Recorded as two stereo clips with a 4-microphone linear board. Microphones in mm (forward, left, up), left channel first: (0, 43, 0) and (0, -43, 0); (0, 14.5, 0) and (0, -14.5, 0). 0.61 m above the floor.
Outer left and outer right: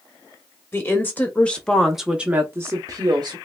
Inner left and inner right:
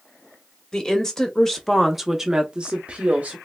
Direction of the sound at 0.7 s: 25° left (ahead or behind).